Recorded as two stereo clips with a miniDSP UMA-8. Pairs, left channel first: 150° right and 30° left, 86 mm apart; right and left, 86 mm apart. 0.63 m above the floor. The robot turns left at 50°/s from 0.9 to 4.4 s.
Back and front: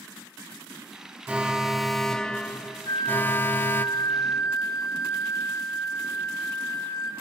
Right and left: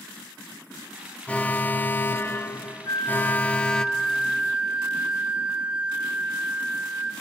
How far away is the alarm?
About 0.7 m.